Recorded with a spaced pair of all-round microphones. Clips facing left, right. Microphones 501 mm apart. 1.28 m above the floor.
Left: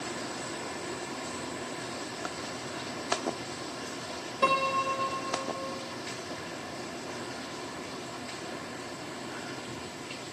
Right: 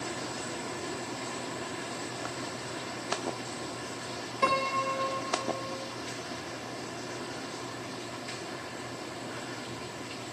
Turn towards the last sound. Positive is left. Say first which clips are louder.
# left 1 dB
turn(degrees=-5)  # may be behind; listen again after turning